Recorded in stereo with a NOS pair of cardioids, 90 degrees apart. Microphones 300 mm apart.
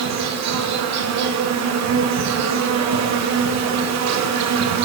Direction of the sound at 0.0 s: 70° right.